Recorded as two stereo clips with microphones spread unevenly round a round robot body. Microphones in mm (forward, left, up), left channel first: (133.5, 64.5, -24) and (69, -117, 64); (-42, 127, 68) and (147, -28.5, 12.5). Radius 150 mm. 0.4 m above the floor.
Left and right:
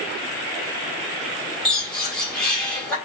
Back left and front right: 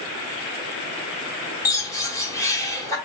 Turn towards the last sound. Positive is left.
turn(degrees=50)